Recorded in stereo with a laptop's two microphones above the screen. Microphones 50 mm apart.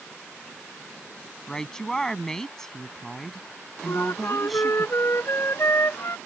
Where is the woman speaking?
10° left (ahead or behind); by 4.9 s centre (ahead or behind).